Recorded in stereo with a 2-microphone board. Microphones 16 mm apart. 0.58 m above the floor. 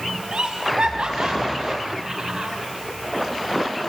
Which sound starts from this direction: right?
Laughter, at 0.3 s.